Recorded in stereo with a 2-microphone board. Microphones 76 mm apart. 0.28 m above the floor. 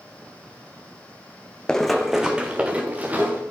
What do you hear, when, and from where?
1.7 s running footsteps: 10° left (ahead or behind), 0.9 m; by 3.4 s 20° right (ahead or behind), 2 m